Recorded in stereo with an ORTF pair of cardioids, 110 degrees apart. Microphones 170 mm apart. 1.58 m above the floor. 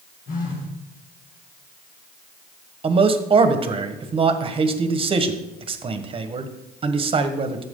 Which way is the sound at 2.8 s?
35° right.